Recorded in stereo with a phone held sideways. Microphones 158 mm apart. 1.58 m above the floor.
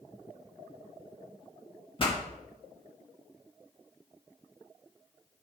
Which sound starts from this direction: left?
A pop, at 2.0 s.